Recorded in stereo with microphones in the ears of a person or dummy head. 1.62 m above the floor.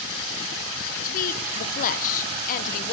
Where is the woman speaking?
50° left (ahead or behind), 1.0 m.